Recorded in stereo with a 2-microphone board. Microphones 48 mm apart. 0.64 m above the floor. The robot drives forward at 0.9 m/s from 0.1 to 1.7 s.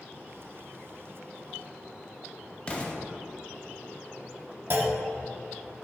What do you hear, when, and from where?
2.7 s an explosion: 25° left (ahead or behind), 1.1 m
4.7 s a clunk: 50° right (ahead or behind), 1.0 m